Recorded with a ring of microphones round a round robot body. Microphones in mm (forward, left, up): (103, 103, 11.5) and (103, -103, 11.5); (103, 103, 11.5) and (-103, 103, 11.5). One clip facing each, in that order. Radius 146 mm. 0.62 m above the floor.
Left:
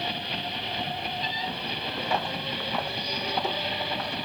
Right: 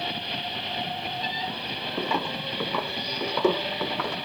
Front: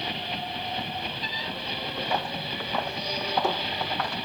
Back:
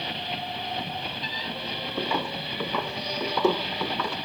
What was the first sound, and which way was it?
Footsteps, 135° right.